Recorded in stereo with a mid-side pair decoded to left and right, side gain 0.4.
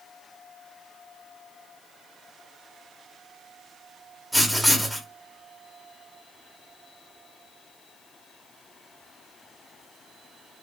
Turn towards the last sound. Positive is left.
turn(degrees=10)